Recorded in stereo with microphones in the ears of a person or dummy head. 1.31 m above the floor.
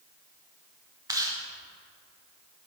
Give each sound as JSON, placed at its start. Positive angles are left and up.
{"t": 1.1, "sound": "chewing", "side_deg": -15, "distance_m": 1.0}